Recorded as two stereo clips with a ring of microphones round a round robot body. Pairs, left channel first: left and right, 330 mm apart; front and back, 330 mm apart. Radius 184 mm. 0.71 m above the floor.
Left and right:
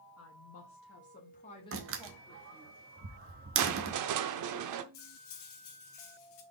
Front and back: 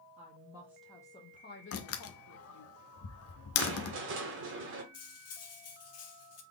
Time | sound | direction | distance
0.2 | a woman speaking | 115° left | 1.2 m
1.7 | a door slam | 40° right | 0.6 m
3.6 | crushing | 120° right | 0.6 m
4.9 | cutlery clinking | 45° left | 1.0 m